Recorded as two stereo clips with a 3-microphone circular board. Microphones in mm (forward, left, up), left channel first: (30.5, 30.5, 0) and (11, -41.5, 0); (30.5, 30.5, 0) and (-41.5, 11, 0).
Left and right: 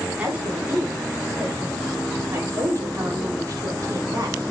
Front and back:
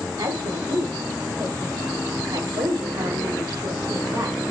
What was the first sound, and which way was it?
A woman speaking, 175° right.